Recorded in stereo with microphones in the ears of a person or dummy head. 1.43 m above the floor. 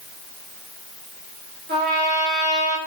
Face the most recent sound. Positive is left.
turn(degrees=-55)  # may be behind; listen again after turning